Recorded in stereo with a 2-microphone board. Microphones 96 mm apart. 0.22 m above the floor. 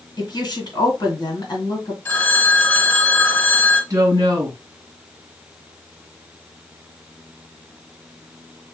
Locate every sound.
0.2 s a woman speaking: 45° left (ahead or behind), 2.5 m
2.0 s a phone ringing: 25° left (ahead or behind), 1.7 m
3.9 s a woman speaking: 35° right (ahead or behind), 2.5 m